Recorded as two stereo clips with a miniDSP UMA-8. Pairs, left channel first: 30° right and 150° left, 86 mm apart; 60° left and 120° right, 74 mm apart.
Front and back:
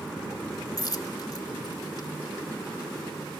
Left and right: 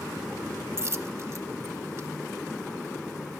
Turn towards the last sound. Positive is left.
turn(degrees=-75)